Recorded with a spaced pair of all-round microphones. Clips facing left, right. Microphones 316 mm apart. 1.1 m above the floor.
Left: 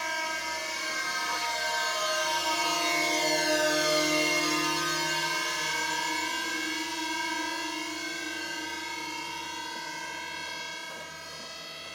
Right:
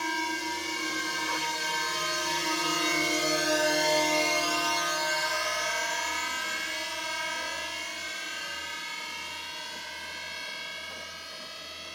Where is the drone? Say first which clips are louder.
Right 6 dB; 50° right (ahead or behind); by 12.0 s 60° left (ahead or behind).